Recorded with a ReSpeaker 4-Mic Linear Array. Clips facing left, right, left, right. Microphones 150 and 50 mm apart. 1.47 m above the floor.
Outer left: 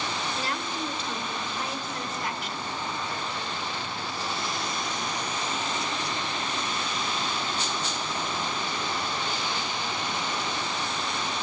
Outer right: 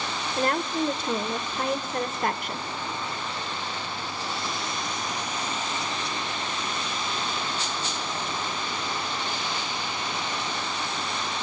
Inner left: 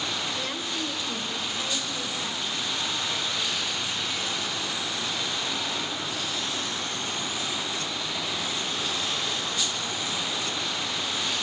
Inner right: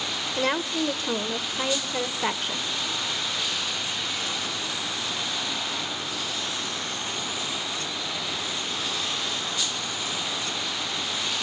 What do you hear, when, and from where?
0.4 s a woman speaking: 55° right (ahead or behind), 0.9 m